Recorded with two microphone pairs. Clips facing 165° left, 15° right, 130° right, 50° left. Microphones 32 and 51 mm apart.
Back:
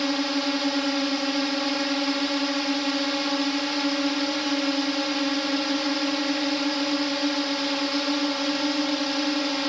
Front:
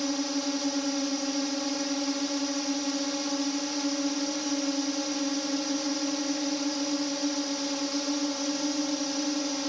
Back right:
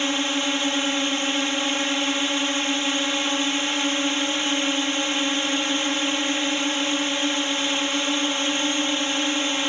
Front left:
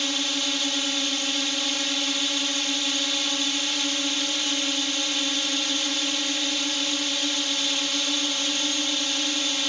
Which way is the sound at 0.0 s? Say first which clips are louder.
Back 5 dB, back right 4 dB; straight behind.